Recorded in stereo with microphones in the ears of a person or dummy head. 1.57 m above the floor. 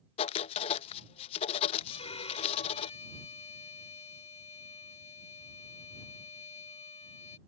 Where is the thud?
I don't hear a thud.